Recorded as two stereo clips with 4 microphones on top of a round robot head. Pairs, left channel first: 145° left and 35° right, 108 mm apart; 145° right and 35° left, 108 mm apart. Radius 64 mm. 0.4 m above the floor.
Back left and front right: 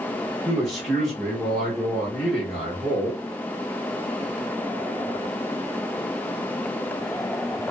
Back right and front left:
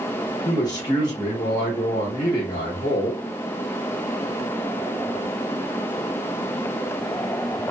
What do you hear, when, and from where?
0.5 s a man speaking: 125° right, 1.1 m